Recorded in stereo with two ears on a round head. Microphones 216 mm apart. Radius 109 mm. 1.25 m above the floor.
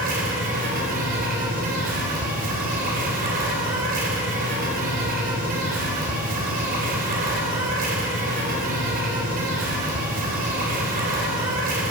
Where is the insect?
40° right (ahead or behind), 3.5 m.